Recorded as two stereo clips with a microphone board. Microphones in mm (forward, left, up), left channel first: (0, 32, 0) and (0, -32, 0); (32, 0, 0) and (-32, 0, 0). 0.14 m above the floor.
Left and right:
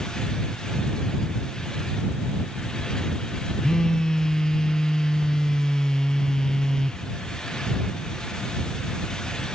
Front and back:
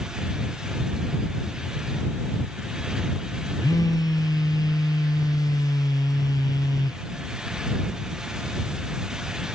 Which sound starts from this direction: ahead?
A phone buzzing, at 3.6 s.